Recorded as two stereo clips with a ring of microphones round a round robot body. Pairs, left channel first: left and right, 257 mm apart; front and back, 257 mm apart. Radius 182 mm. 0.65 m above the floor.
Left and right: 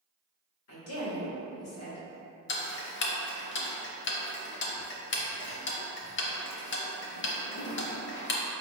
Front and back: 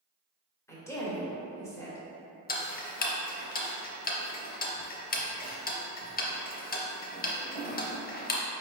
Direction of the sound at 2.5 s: 55° left.